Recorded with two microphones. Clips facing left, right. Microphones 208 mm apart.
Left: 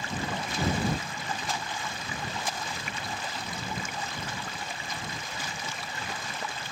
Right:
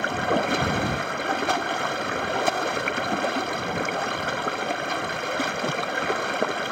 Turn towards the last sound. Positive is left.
turn(degrees=-75)  # may be behind; listen again after turning